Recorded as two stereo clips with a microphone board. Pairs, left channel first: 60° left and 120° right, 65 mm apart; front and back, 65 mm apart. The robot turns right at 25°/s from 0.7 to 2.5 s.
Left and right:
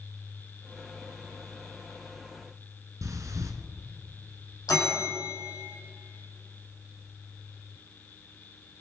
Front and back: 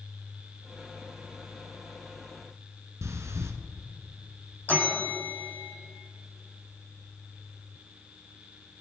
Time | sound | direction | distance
3.0 | breathing | 145° right | 1.4 m
4.7 | a bell | 60° left | 5.5 m